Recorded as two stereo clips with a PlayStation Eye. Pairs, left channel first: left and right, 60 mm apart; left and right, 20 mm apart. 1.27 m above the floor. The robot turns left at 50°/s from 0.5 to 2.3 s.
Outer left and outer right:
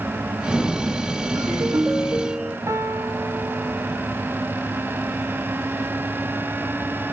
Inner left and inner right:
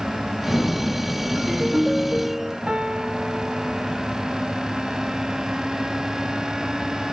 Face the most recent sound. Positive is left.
turn(degrees=-50)  # may be behind; listen again after turning